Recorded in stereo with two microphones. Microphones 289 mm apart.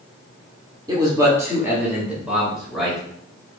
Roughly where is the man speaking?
Centre.